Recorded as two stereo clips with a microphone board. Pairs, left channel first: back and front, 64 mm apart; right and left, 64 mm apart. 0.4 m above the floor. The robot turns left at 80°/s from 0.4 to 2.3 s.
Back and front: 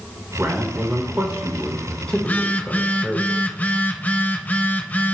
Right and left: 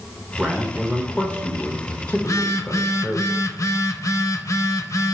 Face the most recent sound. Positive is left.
turn(degrees=-120)